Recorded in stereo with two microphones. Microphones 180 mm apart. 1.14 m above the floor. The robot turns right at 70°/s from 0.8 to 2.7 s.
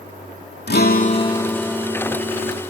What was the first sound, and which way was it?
A guitar, 120° left.